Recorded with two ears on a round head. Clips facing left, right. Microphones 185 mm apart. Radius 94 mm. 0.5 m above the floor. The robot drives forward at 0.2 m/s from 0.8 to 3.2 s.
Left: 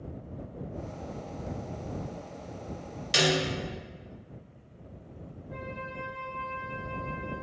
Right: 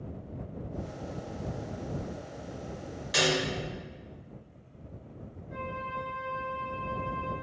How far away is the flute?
About 0.9 m.